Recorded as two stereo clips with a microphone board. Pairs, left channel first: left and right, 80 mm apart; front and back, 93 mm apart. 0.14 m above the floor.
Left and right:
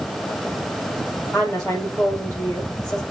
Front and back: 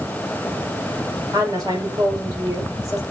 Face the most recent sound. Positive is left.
turn(degrees=130)